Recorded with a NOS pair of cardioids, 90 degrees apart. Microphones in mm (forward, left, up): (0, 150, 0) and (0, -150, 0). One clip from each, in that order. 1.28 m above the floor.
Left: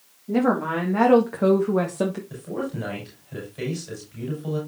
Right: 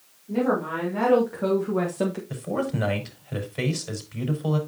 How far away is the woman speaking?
About 3 m.